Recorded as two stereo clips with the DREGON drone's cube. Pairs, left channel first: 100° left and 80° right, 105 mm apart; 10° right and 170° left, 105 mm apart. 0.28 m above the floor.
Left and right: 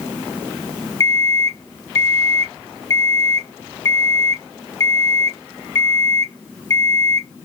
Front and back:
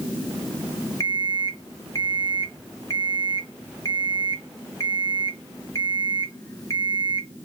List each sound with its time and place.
1.0 s an alarm clock: 50° left, 0.9 m